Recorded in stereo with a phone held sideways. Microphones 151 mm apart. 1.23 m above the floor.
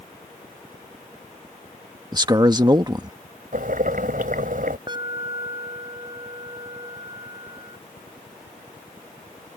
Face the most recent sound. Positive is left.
turn(degrees=-30)  # may be behind; listen again after turning